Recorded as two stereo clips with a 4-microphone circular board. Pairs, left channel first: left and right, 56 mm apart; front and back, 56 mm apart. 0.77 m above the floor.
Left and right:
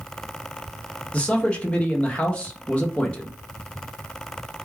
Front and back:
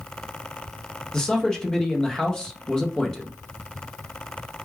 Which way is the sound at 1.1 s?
65° left.